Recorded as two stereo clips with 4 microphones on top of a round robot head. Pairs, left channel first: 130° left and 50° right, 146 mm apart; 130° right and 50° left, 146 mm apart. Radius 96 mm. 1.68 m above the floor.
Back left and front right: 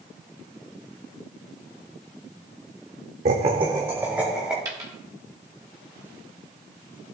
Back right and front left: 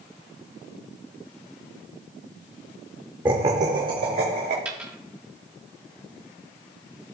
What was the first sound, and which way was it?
Laughter, 20° right.